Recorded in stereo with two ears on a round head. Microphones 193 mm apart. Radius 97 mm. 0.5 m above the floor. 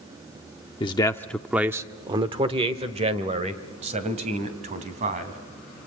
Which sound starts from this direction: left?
A man speaking, at 0.8 s.